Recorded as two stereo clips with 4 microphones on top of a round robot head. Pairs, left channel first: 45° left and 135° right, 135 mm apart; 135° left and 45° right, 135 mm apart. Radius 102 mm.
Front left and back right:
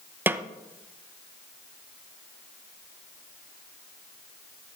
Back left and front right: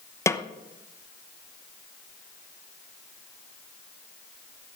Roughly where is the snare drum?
Behind.